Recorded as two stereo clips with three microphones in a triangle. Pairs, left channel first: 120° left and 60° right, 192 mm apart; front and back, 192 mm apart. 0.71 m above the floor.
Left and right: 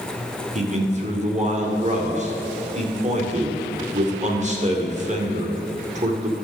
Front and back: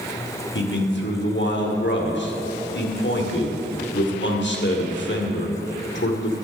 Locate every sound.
0.6 s a man speaking: 10° right, 2 m